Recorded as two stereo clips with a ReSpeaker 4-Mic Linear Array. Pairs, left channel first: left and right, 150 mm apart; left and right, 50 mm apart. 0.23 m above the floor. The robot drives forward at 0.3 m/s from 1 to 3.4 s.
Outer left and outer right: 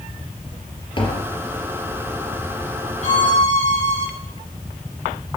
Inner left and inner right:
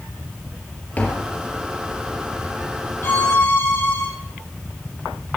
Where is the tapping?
35° left (ahead or behind), 3.5 m.